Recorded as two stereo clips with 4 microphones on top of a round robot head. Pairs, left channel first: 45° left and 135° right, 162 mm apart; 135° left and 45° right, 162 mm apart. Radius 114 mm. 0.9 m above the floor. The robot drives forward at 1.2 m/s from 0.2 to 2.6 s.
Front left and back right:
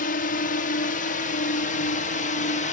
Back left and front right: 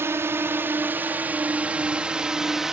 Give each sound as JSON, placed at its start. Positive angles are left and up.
{"t": 0.0, "sound": "a drone", "azimuth_deg": 30}